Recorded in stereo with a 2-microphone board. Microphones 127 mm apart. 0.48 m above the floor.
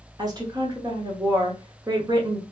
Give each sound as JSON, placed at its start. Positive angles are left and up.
{"t": 0.2, "sound": "a woman speaking", "side_deg": -30, "distance_m": 0.8}